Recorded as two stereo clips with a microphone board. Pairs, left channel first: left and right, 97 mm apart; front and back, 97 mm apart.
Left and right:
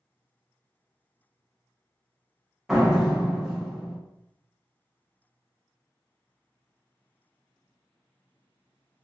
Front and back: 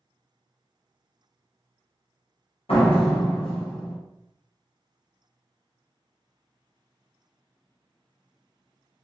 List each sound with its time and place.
2.7 s a door slam: 5° right, 0.8 m